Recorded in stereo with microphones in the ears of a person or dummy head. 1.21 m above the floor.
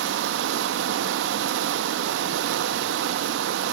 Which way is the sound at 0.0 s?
70° right (ahead or behind).